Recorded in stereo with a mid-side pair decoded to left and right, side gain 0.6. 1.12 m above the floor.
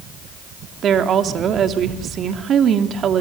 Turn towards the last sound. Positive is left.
turn(degrees=-45)